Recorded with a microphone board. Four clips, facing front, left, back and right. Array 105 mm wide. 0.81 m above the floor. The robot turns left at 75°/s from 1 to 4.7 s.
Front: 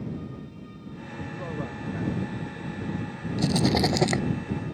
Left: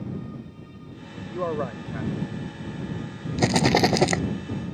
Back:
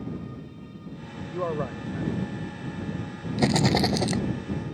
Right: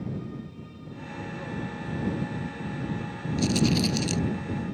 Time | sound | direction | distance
1.3 | a man speaking | 135° left | ?
3.4 | a rattle | 125° left | ?